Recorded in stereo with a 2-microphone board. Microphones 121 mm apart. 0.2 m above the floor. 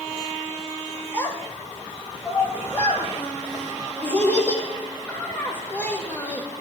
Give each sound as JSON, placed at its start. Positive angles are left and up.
{"t": 1.1, "sound": "a child speaking", "side_deg": 15, "distance_m": 4.0}